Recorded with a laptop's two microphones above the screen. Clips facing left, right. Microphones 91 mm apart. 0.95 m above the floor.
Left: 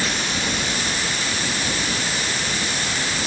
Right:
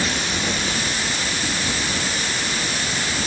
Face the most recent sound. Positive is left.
No sound to turn to.